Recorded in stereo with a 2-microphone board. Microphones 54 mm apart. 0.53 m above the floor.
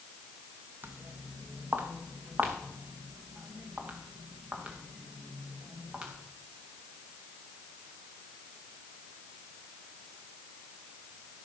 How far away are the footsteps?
About 1.6 m.